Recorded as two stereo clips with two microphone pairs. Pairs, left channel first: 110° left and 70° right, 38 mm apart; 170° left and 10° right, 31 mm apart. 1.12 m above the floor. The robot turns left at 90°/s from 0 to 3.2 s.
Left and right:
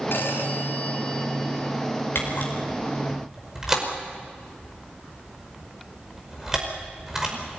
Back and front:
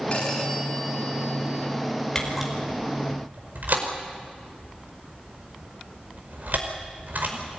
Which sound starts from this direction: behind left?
A phone ringing, at 0.1 s.